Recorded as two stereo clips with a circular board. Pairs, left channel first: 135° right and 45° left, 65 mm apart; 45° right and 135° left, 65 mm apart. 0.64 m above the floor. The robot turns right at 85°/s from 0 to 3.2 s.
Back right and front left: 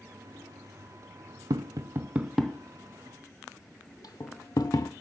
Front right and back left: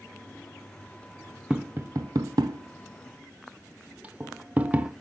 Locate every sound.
1.5 s tapping: 60° left, 0.7 m; by 4.9 s 155° right, 0.7 m